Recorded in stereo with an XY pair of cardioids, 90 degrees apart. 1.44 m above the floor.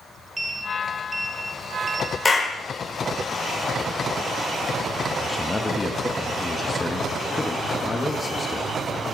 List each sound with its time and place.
0.4 s a sliding door: 15° right, 2 m
2.2 s a clap: 30° left, 4 m
5.2 s a man speaking: 25° left, 2 m